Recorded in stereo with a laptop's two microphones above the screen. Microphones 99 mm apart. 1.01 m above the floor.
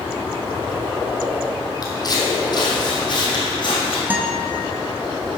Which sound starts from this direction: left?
Footsteps, at 1.8 s.